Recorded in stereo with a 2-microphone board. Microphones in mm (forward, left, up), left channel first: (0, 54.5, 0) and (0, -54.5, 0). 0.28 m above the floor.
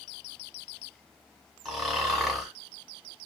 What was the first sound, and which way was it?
Snoring, centre (ahead or behind).